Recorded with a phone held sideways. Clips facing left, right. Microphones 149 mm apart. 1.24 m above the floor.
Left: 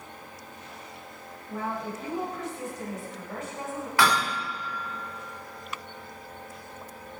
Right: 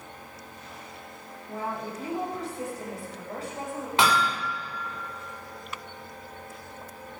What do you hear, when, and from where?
1.5 s a woman speaking: 35° right (ahead or behind), 6.5 m
4.0 s hammering: 25° right (ahead or behind), 4.5 m